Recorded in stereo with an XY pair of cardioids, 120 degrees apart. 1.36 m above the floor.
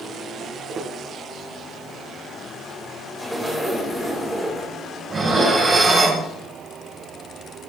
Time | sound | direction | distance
0.4 | footsteps | 45° right | 6 m
3.2 | a zipper | 5° right | 5 m
5.1 | dishes clattering | 30° right | 4.5 m